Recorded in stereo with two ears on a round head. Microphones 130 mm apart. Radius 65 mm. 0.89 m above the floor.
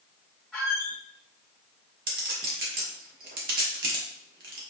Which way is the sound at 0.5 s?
Centre (ahead or behind).